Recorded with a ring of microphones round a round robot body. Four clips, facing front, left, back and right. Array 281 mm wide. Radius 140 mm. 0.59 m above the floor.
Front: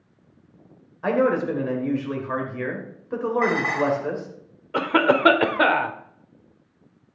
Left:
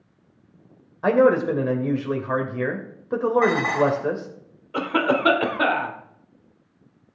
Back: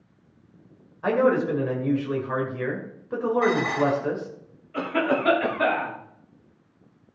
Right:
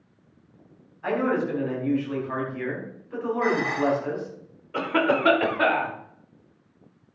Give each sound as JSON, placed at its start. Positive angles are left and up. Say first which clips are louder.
{"t": 1.0, "sound": "a man speaking", "louder": "left 7 dB, even", "azimuth_deg": 85, "distance_m": 2.0}
{"t": 3.4, "sound": "dishes clattering", "louder": "left 4 dB, even", "azimuth_deg": 75, "distance_m": 3.0}
{"t": 4.7, "sound": "a cough", "louder": "left 1 dB, front 5 dB", "azimuth_deg": 5, "distance_m": 1.8}